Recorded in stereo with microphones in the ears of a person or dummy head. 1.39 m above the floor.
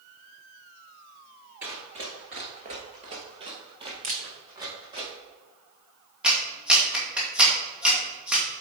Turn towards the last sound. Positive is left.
turn(degrees=-5)  # may be behind; listen again after turning